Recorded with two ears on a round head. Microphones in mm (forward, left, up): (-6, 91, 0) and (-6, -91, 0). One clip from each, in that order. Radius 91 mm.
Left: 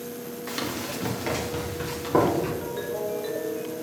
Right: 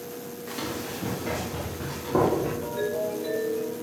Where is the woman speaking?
I don't hear a woman speaking.